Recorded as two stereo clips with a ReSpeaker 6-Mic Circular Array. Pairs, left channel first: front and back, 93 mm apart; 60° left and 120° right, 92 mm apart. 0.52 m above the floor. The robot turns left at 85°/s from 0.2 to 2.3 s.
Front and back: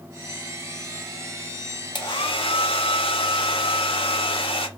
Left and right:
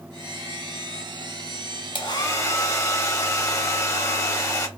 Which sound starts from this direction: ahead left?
A hair dryer, at 1.9 s.